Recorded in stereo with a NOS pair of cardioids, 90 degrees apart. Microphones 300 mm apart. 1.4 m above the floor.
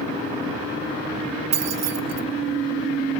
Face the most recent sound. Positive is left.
turn(degrees=-60)